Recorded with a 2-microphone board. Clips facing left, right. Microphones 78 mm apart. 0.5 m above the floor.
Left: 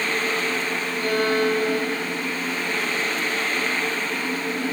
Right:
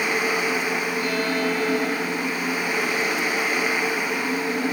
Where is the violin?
50° left (ahead or behind), 2 m.